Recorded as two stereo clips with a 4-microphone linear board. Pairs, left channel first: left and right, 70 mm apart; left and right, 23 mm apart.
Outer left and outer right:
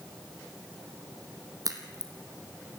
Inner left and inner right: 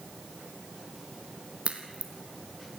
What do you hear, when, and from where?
1.6 s a crack: 55° right (ahead or behind), 2.5 m